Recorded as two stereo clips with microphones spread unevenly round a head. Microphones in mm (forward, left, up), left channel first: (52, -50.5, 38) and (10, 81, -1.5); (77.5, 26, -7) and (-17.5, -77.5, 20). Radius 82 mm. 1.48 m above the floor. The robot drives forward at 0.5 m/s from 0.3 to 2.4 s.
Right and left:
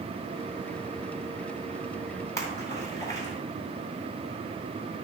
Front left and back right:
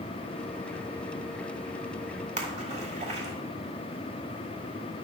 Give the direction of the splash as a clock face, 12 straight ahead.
4 o'clock.